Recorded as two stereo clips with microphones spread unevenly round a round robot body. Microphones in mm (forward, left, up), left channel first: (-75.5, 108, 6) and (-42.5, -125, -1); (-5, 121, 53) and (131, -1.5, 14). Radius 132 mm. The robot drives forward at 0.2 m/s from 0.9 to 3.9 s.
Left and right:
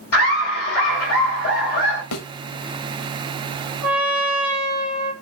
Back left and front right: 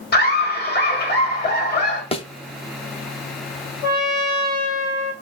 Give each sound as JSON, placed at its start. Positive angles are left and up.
{"t": 0.1, "sound": "laughter", "azimuth_deg": 105, "distance_m": 2.5}
{"t": 2.1, "sound": "a thud", "azimuth_deg": 70, "distance_m": 0.6}
{"t": 3.8, "sound": "a trumpet", "azimuth_deg": -165, "distance_m": 1.5}